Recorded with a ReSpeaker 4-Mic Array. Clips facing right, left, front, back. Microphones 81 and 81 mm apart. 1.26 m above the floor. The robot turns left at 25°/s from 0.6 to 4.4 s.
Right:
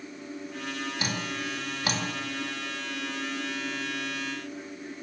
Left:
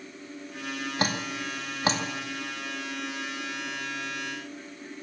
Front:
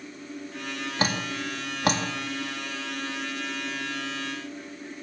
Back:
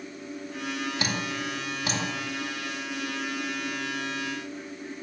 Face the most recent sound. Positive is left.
turn(degrees=-35)